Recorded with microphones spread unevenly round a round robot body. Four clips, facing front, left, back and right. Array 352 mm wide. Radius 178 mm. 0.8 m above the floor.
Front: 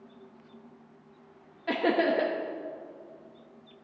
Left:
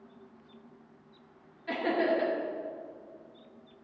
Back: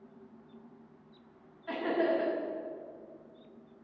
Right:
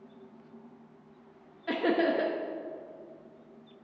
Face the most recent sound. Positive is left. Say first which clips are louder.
# right 1 dB, front 4 dB
turn(degrees=-30)